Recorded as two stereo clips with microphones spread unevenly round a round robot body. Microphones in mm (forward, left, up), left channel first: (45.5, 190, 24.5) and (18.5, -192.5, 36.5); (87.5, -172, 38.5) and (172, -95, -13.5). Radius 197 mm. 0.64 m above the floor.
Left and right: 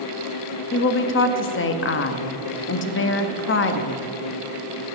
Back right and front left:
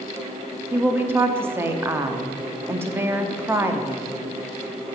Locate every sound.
0.7 s a woman speaking: 45° left, 0.6 m